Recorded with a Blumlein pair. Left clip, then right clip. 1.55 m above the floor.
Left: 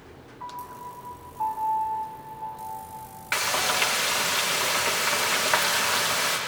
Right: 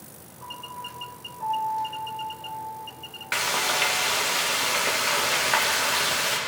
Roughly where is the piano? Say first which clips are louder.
Even; ahead left.